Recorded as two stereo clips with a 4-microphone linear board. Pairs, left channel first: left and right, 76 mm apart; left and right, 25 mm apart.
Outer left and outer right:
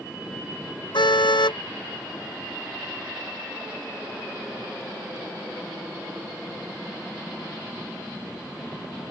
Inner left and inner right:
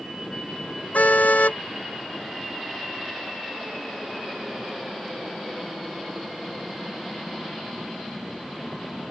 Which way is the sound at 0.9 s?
80° left.